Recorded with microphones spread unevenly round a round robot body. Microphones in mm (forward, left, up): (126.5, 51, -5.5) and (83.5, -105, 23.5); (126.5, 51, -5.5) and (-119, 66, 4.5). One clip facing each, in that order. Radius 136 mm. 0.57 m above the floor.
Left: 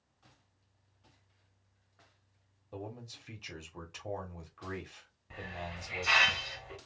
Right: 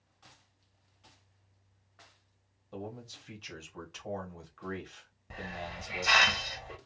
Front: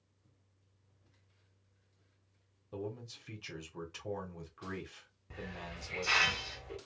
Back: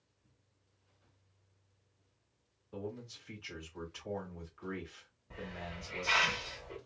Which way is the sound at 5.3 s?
60° right.